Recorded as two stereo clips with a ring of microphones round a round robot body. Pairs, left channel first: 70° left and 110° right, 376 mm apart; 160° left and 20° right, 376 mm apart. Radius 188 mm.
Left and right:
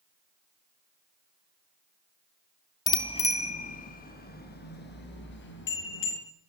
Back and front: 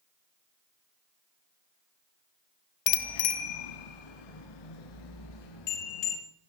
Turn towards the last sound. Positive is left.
turn(degrees=130)